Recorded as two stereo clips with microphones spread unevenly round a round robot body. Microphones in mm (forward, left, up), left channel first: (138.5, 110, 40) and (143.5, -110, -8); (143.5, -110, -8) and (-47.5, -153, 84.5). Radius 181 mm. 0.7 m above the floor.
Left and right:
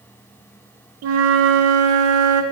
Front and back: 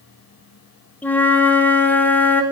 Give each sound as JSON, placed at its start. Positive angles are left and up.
{"t": 1.0, "sound": "a flute", "azimuth_deg": -70, "distance_m": 0.7}